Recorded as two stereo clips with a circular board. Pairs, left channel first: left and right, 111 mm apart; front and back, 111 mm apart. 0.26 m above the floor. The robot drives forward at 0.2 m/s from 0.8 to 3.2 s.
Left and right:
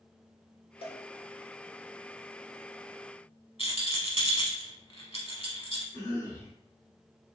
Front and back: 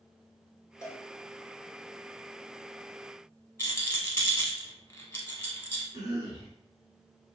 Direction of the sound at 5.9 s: 140° left.